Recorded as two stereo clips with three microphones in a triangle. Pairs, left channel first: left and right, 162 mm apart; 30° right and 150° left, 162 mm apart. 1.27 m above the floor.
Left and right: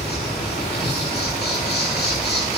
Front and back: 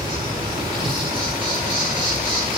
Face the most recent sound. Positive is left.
turn(degrees=95)